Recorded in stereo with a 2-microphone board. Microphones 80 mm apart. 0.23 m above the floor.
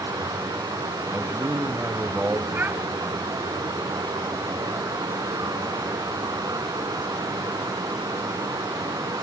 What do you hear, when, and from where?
0.0 s running water: 50° right (ahead or behind), 0.8 m
1.1 s a man speaking: 20° right (ahead or behind), 1.0 m
2.5 s a child speaking: 25° right (ahead or behind), 0.7 m